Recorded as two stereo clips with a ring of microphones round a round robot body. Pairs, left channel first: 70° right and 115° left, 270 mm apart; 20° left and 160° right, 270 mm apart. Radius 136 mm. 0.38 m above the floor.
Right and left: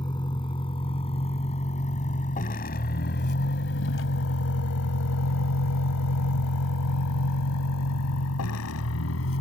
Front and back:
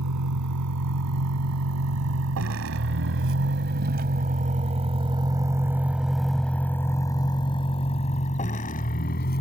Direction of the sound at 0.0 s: 140° right.